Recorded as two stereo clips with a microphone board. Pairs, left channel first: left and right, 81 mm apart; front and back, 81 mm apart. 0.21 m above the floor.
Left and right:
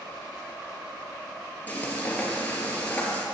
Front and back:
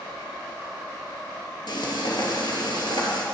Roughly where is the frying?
Ahead.